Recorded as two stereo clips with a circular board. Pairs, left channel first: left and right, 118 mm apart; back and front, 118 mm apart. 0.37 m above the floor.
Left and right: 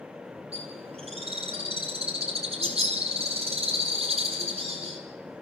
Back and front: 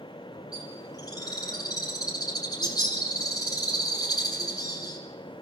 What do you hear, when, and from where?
0.5 s a bird: 120° right, 3.5 m